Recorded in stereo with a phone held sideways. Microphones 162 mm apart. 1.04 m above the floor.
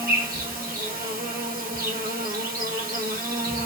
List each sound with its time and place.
0.0 s an insect: 65° right (ahead or behind), 1.3 m